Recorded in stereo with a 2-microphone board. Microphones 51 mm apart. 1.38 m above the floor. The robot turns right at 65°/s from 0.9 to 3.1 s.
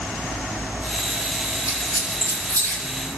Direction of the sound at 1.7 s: 75° left (ahead or behind).